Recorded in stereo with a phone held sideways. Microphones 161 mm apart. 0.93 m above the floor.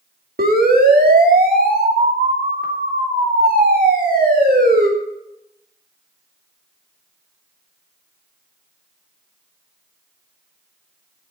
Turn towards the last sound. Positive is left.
turn(degrees=-70)  # may be behind; listen again after turning